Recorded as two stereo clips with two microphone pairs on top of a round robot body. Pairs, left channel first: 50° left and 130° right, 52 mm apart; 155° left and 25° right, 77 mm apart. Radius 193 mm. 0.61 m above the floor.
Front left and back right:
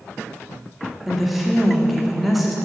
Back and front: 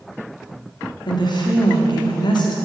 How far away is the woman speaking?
About 1.6 m.